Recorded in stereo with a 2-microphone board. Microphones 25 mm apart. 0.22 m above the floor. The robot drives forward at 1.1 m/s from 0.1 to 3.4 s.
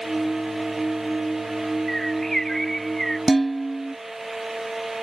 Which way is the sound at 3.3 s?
Centre (ahead or behind).